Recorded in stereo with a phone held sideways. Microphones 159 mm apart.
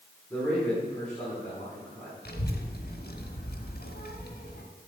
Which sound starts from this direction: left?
A child speaking, at 2.2 s.